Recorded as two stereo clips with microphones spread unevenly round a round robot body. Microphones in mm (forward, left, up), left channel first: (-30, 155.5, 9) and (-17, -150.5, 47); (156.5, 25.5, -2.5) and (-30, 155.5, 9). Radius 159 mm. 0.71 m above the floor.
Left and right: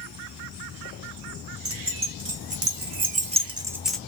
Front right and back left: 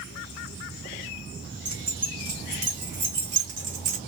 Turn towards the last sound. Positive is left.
turn(degrees=175)